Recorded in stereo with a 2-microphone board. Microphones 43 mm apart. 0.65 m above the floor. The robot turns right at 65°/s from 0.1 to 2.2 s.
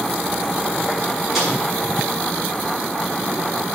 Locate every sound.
1.4 s a snare drum: centre (ahead or behind), 7.5 m; by 1.5 s 10° right (ahead or behind), 7.5 m